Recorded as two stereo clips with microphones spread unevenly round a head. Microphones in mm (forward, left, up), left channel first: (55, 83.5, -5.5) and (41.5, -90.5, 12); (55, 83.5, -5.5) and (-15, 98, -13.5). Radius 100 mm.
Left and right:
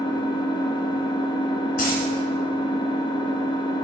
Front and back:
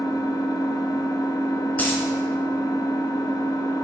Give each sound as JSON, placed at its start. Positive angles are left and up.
{"t": 0.0, "sound": "an engine running", "azimuth_deg": 20, "distance_m": 0.9}
{"t": 1.8, "sound": "a dropped coin", "azimuth_deg": 50, "distance_m": 2.0}